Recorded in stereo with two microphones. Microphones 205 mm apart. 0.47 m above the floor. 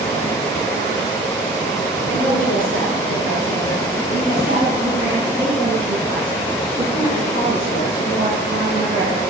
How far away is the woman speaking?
About 7.5 m.